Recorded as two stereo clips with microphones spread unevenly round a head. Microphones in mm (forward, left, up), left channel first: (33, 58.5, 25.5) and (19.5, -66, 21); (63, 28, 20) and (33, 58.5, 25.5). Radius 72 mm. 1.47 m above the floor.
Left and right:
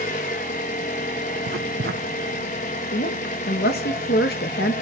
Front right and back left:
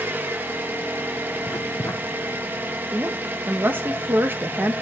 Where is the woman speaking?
100° left, 1.4 m.